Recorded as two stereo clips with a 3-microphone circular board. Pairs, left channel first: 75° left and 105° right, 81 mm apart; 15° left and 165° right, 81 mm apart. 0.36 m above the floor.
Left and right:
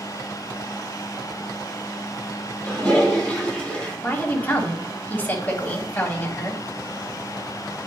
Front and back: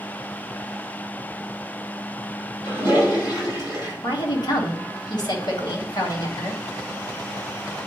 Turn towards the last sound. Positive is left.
turn(degrees=10)